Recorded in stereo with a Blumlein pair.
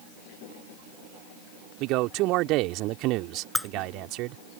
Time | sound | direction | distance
1.8 | a man speaking | 40° right | ?
3.5 | breaking glass | 5° left | ?